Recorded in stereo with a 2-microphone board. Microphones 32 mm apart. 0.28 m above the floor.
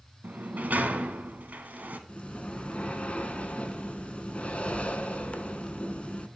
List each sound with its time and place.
0.2 s a sliding door: 75° right (ahead or behind), 0.6 m
2.1 s breathing: 45° left (ahead or behind), 0.6 m